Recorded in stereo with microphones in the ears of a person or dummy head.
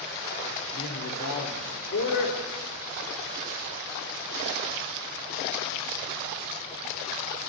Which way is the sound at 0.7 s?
65° left (ahead or behind).